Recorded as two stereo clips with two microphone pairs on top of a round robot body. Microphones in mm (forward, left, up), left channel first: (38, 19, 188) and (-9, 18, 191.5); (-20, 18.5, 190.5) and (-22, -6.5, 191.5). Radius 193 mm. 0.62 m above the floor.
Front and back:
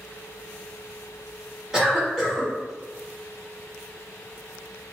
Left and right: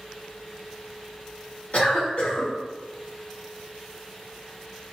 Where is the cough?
105° left, 1.9 m.